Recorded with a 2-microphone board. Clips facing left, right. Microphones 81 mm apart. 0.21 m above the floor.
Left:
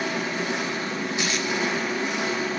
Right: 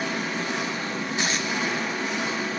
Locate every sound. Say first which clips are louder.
0.0 s an engine running: left 1 dB; 5° left (ahead or behind), 2 m
1.2 s tape being pulled: right 1 dB; 35° right (ahead or behind), 0.7 m